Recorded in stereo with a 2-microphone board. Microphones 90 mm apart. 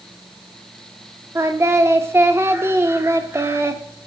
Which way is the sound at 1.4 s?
30° right (ahead or behind).